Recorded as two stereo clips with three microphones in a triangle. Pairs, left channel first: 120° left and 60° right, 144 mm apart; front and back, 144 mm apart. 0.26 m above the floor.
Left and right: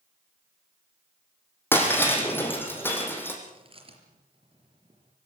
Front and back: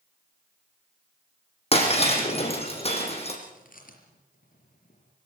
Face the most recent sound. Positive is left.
turn(degrees=-10)